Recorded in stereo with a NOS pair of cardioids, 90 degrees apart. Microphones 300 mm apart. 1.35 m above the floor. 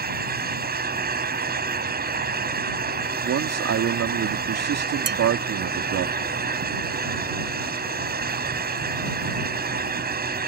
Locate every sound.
0.0 s a fan: 30° right
3.2 s a man speaking: 55° right
5.1 s dishes clattering: 35° right